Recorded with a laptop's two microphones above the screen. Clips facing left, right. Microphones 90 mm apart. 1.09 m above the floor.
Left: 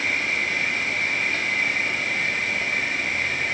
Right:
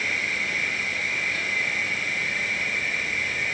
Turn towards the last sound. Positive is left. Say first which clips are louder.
# left 2 dB
turn(degrees=75)  # may be behind; listen again after turning